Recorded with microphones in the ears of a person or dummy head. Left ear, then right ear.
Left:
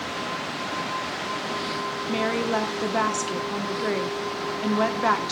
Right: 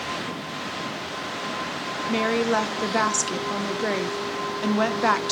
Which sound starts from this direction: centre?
A woman speaking, at 2.1 s.